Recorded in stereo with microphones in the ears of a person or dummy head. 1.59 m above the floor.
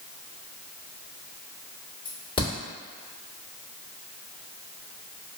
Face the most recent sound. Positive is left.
turn(degrees=20)  # may be behind; listen again after turning